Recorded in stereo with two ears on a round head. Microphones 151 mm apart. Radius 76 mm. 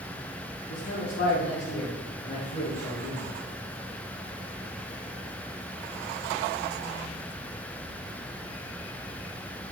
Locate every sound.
0.7 s a man speaking: 55° left (ahead or behind), 1.6 m; by 3.3 s 60° left (ahead or behind), 4 m